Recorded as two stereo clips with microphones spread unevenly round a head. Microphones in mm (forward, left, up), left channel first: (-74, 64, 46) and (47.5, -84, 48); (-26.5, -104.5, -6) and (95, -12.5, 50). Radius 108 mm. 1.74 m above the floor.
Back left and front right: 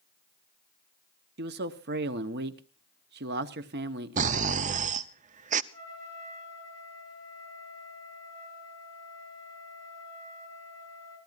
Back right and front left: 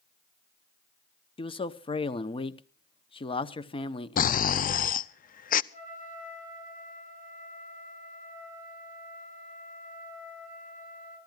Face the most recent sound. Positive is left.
turn(degrees=-105)